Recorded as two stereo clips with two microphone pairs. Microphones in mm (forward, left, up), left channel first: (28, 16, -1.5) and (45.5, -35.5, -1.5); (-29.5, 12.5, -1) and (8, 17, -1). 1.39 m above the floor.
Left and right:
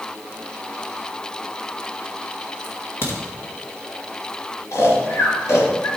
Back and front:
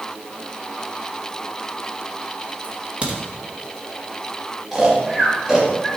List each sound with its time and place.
2.6 s a crack: 65° left, 2 m
4.7 s snoring: 85° left, 2.5 m